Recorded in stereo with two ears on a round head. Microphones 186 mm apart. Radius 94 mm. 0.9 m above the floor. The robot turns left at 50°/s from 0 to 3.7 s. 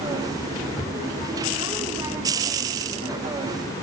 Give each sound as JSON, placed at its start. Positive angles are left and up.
{"t": 0.8, "sound": "a cupboard door", "side_deg": 30, "distance_m": 2.0}